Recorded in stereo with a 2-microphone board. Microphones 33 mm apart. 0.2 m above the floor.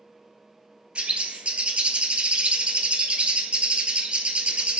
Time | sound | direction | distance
0.9 | a bird | 35° right (ahead or behind) | 0.8 m